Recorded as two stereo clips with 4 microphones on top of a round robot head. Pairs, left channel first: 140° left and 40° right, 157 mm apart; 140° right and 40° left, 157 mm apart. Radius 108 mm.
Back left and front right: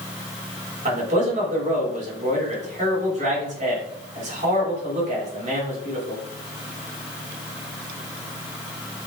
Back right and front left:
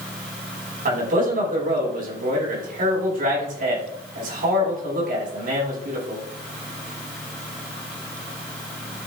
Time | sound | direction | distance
0.8 | a man speaking | 5° left | 6 m